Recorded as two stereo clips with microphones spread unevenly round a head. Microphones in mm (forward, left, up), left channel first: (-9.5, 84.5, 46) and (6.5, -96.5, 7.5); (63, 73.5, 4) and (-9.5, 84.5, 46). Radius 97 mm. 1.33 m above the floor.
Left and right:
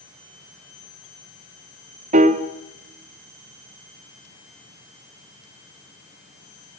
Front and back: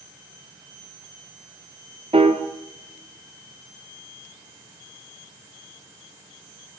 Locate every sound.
2.1 s a piano: 135° right, 1.5 m